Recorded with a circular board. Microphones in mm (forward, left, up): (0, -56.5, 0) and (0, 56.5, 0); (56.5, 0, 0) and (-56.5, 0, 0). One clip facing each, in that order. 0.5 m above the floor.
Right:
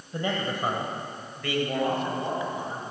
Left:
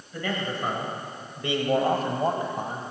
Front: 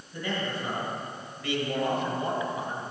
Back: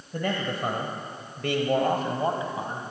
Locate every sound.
0.1 s a man speaking: 150° right, 2 m; by 2.8 s 120° left, 3 m